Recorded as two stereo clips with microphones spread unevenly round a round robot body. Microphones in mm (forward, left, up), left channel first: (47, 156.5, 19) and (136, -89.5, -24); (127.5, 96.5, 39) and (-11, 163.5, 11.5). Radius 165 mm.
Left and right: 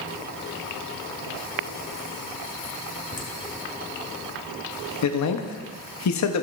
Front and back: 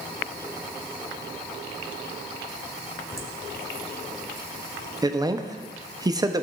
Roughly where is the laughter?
Ahead left.